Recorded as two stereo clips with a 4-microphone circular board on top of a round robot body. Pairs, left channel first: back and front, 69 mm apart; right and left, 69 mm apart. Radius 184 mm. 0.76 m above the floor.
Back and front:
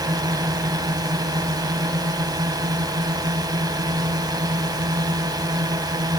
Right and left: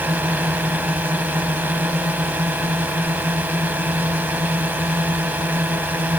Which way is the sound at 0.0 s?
25° left.